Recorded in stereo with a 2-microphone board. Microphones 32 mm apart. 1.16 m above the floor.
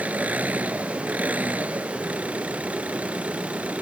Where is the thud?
I don't hear a thud.